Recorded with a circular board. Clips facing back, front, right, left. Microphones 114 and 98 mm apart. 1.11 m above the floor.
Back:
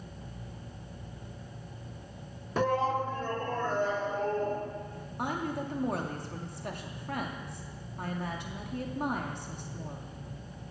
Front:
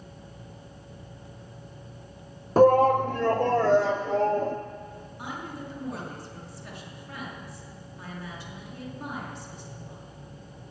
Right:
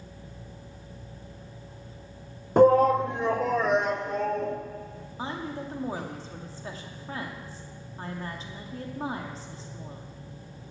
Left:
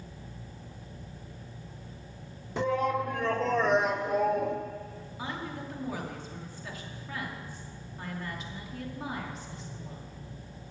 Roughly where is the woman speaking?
Behind right.